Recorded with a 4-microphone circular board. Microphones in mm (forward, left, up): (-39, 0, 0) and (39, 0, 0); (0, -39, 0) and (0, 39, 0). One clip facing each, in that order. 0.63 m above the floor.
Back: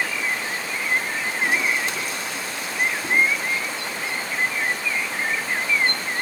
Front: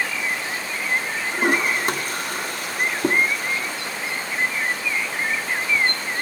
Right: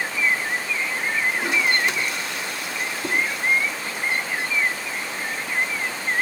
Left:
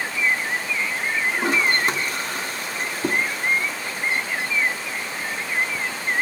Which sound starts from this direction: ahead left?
A toilet flushing, at 1.3 s.